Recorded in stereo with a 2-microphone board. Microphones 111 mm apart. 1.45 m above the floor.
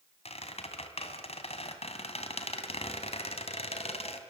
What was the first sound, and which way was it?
A squeak, 65° left (ahead or behind).